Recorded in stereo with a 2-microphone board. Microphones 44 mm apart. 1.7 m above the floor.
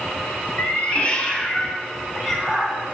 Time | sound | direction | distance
0.6 | a cat meowing | 40° left (ahead or behind) | 2 m